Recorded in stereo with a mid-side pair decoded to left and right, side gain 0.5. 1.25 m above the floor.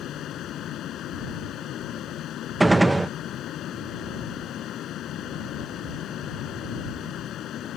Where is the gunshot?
15° right.